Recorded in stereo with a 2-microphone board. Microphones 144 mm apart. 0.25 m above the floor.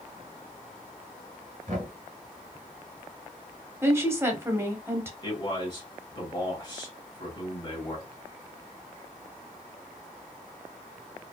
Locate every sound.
1.7 s knocking: 60° right (ahead or behind), 2.5 m
3.8 s a woman speaking: 15° right (ahead or behind), 1.0 m
5.2 s a man speaking: 35° left (ahead or behind), 1.5 m